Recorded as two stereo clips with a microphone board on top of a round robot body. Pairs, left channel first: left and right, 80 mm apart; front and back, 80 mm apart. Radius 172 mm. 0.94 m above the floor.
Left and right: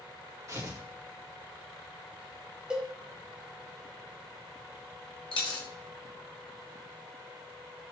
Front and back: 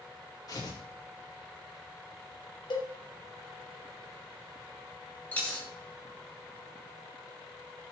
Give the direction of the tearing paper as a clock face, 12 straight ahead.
1 o'clock.